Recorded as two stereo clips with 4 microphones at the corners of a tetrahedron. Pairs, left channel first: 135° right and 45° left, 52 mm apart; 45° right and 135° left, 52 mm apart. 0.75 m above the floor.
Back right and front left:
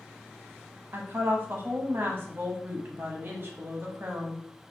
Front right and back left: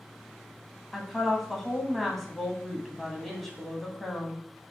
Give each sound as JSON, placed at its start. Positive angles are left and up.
{"t": 0.9, "sound": "a woman speaking", "azimuth_deg": 40, "distance_m": 0.8}